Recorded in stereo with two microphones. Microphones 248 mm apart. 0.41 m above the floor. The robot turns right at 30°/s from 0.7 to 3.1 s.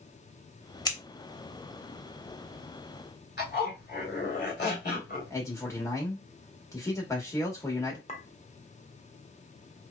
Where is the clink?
30° left (ahead or behind), 0.7 m.